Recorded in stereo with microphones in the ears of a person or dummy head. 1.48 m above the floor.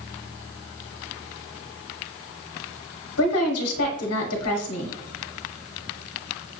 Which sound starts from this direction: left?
A woman speaking, at 3.2 s.